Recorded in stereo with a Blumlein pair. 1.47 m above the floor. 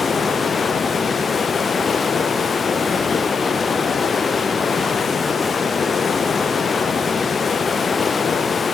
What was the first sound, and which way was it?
Running water, 20° left.